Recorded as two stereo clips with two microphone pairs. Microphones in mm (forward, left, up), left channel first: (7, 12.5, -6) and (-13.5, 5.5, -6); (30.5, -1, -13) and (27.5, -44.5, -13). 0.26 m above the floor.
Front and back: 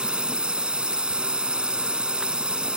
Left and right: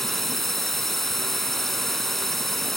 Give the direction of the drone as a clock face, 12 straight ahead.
6 o'clock.